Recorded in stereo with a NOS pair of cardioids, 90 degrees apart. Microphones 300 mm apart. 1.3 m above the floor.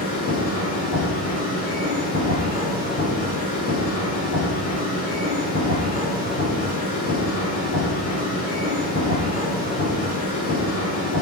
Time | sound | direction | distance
0.0 | a machine running | 55° left | 5 m